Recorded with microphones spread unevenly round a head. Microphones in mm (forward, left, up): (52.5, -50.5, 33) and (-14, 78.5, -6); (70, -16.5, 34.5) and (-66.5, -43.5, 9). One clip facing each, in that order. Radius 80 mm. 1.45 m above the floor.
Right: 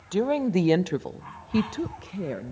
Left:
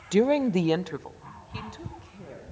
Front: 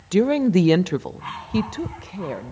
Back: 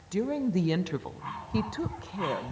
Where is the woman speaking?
45° left, 0.6 m; by 2.5 s 70° right, 1.2 m.